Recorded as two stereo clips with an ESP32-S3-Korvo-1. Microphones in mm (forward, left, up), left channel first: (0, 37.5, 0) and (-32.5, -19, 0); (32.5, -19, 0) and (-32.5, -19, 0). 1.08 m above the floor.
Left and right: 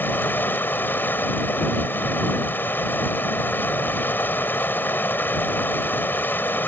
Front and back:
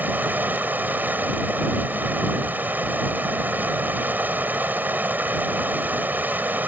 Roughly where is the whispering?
I don't hear whispering.